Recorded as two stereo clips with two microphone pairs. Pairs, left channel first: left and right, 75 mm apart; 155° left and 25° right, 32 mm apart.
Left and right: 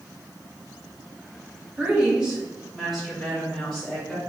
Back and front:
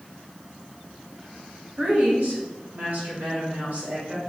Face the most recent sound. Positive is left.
turn(degrees=0)